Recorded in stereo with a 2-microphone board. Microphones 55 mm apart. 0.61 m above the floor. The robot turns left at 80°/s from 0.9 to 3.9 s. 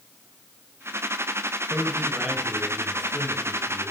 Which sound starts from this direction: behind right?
A man speaking, at 1.7 s.